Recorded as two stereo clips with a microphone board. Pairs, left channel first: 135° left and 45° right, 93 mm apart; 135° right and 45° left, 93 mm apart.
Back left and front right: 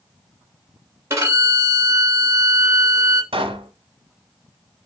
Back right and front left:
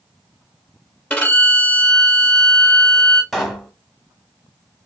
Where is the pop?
45° right, 0.9 m.